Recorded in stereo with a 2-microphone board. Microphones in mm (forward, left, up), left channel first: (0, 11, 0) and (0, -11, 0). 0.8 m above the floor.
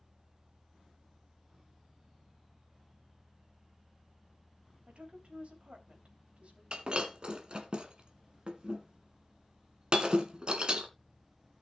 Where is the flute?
No flute in this recording.